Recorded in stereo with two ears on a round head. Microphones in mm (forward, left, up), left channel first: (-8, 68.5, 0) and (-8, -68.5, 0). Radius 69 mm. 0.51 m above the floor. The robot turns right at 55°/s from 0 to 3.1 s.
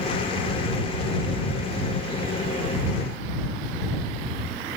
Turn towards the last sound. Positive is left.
No sound to turn to.